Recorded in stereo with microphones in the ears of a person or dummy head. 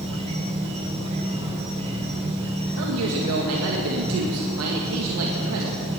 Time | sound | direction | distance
0.0 | an insect | 30° right (ahead or behind) | 1.8 m
2.8 | a man speaking | 80° right | 1.9 m